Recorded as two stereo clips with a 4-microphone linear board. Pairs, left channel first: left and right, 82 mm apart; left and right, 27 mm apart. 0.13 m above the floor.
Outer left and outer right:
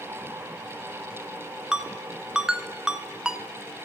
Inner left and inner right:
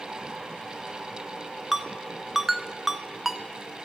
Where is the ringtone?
10° right (ahead or behind), 0.5 m.